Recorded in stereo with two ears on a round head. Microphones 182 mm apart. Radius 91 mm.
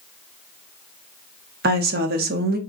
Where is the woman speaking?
50° right (ahead or behind), 0.7 m.